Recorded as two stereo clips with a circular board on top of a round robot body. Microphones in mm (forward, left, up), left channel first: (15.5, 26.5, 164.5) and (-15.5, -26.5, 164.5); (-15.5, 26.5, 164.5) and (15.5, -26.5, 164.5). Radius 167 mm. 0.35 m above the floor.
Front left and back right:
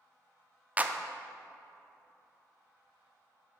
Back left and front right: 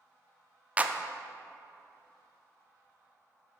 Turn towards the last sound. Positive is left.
turn(degrees=-95)